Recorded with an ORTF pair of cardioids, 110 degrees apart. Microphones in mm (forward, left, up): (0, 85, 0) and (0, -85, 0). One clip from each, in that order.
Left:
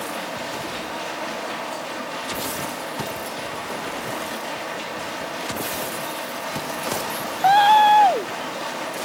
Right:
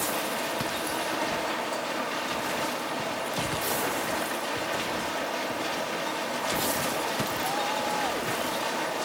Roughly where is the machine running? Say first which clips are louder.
Even; ahead.